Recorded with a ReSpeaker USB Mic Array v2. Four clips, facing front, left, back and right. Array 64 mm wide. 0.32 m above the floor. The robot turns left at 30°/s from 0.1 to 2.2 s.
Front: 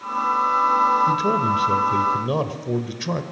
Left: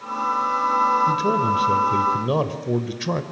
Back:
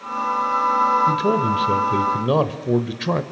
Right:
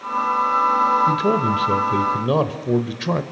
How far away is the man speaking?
About 1.5 m.